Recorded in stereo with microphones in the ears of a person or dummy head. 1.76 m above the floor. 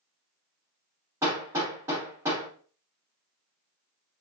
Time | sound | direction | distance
1.2 | hammering | 15° right (ahead or behind) | 1.8 m